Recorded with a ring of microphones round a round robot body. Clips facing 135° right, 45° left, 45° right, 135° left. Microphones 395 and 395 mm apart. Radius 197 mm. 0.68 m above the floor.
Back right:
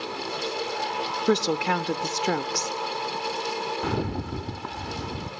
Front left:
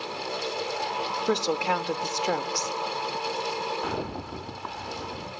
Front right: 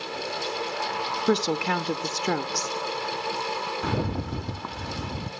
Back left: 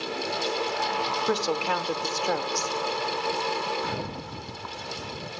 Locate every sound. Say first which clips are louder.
1.3 s a woman speaking: back right 3 dB, front right 4 dB; 90° right, 0.9 m
3.8 s a rattle: back right 4 dB, front right 5 dB; 75° right, 0.8 m